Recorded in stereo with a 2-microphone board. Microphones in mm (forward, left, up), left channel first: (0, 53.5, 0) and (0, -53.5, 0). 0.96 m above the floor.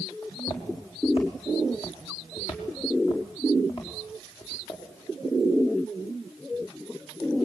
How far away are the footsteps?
About 4 m.